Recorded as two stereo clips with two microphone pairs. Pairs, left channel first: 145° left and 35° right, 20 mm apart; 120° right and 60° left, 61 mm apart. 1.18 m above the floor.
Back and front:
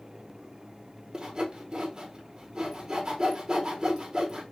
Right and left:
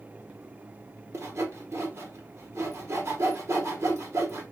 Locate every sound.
1.1 s sawing: 20° left, 0.9 m